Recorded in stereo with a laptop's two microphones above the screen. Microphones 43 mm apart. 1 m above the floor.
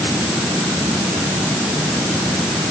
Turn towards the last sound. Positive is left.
No sound to turn to.